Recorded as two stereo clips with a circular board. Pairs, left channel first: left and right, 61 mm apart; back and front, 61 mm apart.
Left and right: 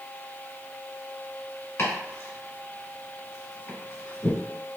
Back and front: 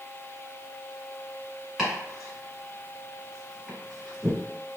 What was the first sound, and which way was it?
Chopping, 85° left.